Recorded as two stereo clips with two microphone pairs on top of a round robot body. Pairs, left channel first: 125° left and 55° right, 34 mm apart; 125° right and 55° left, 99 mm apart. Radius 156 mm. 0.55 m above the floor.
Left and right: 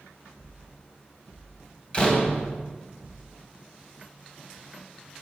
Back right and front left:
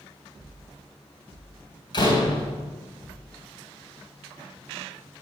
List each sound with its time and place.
1.9 s a door slam: 175° right, 3 m